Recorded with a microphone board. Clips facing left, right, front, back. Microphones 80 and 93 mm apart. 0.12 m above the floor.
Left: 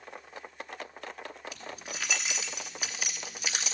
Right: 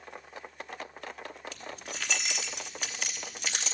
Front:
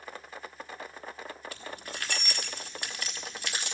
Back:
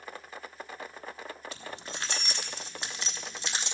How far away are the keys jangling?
About 1.1 m.